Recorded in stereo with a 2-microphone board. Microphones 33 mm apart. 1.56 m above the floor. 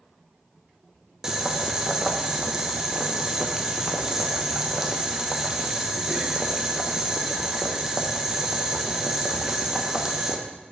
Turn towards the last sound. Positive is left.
turn(degrees=-15)  # may be behind; listen again after turning